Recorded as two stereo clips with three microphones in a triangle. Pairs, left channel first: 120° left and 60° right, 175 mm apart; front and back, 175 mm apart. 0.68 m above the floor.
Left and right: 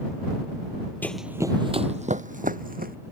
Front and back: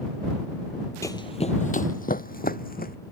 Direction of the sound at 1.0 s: 50° left.